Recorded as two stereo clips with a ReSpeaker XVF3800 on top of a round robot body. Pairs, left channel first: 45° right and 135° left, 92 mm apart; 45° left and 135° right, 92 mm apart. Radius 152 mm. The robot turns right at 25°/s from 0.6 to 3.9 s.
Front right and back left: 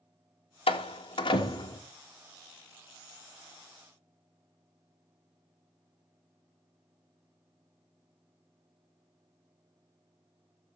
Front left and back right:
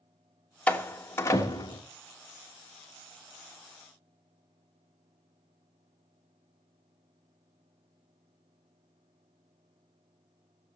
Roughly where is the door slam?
Ahead right.